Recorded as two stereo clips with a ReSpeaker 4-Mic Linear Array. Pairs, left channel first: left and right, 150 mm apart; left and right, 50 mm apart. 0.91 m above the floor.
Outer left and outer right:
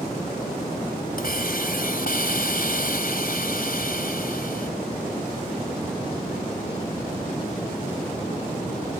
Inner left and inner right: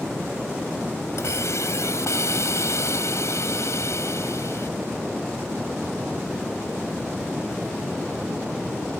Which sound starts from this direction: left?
A hiss, at 1.2 s.